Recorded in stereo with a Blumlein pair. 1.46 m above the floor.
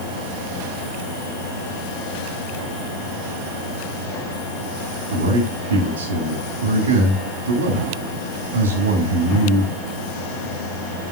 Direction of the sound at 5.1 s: 60° right.